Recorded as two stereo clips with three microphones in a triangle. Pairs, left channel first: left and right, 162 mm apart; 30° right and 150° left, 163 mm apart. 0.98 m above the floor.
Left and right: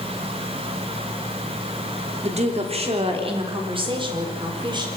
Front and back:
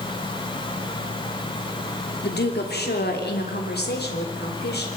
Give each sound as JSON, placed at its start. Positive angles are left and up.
{"t": 2.2, "sound": "a woman speaking", "azimuth_deg": -40, "distance_m": 3.0}